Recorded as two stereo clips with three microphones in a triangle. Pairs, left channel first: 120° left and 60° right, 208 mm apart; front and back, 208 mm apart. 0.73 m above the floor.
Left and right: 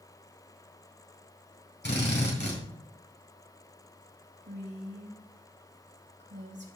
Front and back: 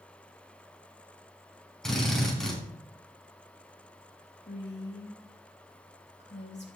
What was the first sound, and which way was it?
A drill, 85° left.